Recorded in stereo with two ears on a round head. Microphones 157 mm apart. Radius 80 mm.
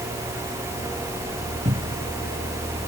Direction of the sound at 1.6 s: 35° right (ahead or behind).